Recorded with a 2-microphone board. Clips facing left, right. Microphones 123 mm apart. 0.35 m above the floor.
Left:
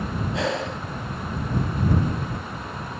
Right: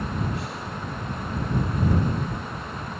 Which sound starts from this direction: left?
Breathing, at 0.3 s.